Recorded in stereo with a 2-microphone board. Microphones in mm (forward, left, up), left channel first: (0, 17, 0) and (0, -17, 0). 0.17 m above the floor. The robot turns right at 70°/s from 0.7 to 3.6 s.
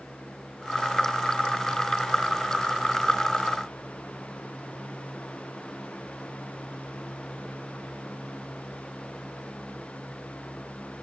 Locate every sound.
Only background noise.